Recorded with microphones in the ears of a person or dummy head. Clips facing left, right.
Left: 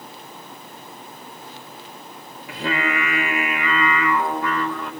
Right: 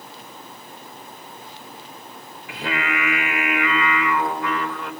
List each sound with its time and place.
2.5 s singing: 80° left, 5 m